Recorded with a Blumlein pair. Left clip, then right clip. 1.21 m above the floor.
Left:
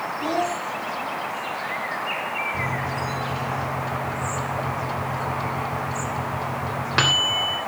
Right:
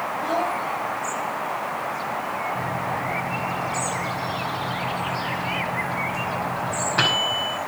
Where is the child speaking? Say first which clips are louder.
Even; 45° left, 2.5 m.